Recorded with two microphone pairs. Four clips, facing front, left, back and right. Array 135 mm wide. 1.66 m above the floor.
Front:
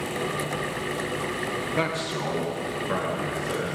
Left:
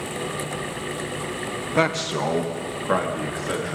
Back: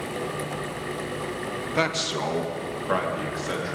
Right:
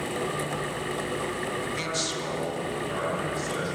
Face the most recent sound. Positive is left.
turn(degrees=115)